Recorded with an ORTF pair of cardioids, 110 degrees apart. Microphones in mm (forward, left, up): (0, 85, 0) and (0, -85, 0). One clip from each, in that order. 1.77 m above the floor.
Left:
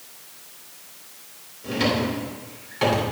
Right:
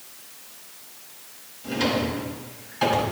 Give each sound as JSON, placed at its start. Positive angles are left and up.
{"t": 1.6, "sound": "a drawer", "azimuth_deg": 25, "distance_m": 3.5}